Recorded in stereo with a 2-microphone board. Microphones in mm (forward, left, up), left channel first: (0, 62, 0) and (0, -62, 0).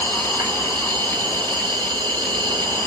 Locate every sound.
0.0 s an insect: 35° right (ahead or behind), 0.8 m